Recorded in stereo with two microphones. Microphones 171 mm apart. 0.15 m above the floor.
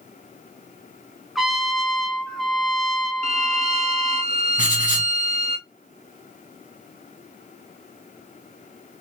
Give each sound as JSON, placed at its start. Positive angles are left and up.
{"t": 1.4, "sound": "a trumpet", "side_deg": 0, "distance_m": 1.0}
{"t": 3.2, "sound": "a violin", "side_deg": -40, "distance_m": 0.5}
{"t": 4.6, "sound": "writing", "side_deg": 45, "distance_m": 2.0}